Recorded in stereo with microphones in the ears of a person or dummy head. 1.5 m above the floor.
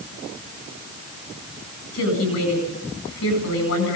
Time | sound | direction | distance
1.9 | a woman speaking | 90° left | 9.5 m